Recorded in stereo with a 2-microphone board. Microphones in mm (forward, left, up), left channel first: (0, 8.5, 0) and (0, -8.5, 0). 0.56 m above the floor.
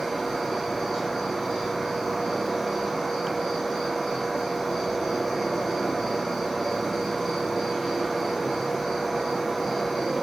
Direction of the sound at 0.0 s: Centre (ahead or behind).